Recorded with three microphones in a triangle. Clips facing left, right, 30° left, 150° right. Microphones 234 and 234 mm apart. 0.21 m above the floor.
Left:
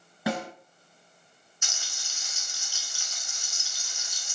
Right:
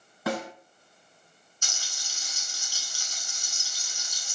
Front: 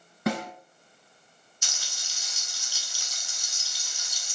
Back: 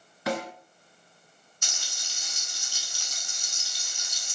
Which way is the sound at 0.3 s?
15° left.